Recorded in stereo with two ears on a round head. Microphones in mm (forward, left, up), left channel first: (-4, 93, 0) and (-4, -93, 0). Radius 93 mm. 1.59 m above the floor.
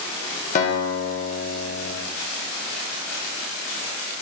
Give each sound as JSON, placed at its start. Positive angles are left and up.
{"t": 0.6, "sound": "a guitar", "side_deg": 40, "distance_m": 0.7}